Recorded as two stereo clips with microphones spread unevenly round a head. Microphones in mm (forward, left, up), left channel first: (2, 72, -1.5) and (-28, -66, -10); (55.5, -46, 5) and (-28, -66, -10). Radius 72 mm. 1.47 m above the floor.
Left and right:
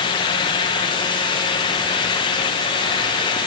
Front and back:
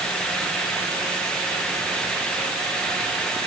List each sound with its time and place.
Only background noise.